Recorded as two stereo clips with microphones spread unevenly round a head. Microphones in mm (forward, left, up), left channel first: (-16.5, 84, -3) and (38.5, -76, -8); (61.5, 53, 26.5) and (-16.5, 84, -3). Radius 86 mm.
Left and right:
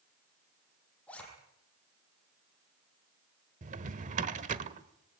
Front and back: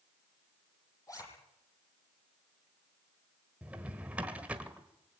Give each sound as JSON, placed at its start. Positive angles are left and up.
{"t": 1.1, "sound": "a zipper", "azimuth_deg": 25, "distance_m": 10.0}
{"t": 3.6, "sound": "a drawer", "azimuth_deg": -105, "distance_m": 1.3}